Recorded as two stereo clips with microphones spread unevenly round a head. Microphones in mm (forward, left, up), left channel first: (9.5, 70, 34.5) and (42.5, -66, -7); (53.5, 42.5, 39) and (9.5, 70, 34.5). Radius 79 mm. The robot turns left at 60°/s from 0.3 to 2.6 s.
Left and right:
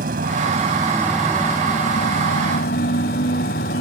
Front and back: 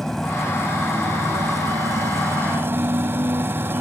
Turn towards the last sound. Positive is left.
turn(degrees=105)